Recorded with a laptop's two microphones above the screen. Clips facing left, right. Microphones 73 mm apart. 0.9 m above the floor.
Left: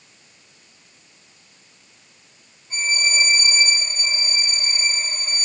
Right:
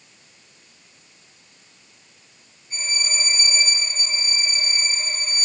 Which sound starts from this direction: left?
A violin, at 2.7 s.